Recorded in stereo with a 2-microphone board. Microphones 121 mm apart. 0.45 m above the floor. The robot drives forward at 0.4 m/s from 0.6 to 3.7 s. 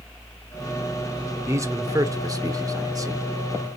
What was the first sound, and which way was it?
A man speaking, 25° right (ahead or behind).